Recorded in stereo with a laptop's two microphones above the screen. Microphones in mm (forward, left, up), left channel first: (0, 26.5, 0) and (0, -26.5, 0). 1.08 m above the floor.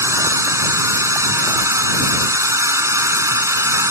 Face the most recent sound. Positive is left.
turn(degrees=-70)  # may be behind; listen again after turning